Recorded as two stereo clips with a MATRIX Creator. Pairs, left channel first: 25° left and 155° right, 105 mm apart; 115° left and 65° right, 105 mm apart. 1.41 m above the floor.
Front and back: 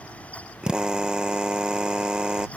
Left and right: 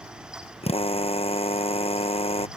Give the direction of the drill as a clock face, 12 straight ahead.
8 o'clock.